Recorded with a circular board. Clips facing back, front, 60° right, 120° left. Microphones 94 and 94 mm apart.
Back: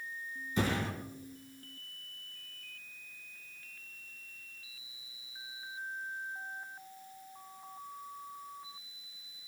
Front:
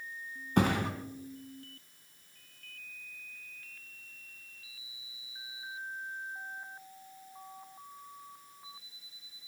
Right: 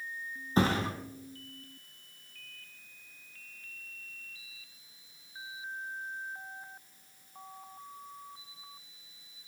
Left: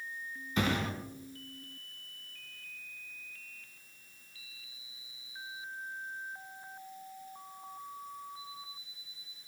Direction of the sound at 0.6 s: 10° right.